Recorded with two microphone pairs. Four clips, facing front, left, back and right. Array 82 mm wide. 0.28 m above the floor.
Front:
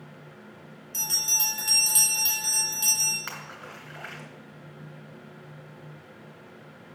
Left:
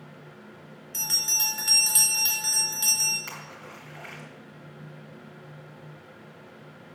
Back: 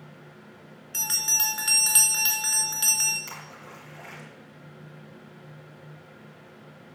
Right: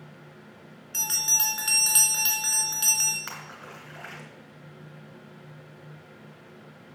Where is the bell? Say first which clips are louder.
Right 3 dB, back 2 dB; 150° right, 3.5 m.